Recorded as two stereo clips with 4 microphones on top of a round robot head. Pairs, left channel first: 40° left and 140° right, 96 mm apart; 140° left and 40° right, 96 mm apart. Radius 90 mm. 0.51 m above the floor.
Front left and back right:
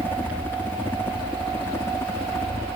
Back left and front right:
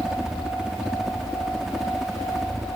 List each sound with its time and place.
0.0 s a helicopter: 25° left; by 2.8 s 45° left